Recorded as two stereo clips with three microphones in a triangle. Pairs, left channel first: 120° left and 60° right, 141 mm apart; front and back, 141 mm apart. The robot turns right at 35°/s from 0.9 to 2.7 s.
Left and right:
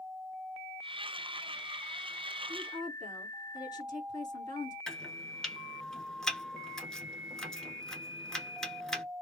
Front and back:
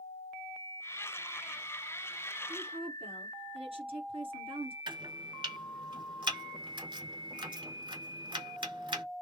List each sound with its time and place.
2.5 s a woman speaking: 160° left, 1.8 m; by 4.8 s 165° left, 1.8 m
4.9 s chopping: 155° right, 0.8 m